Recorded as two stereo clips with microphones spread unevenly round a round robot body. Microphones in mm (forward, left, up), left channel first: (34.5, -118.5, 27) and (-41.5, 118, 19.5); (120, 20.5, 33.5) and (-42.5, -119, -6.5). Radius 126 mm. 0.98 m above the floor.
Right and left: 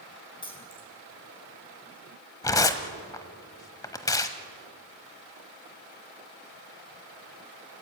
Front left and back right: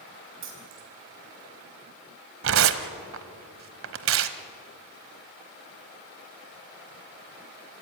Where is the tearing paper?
145° right, 1.0 m.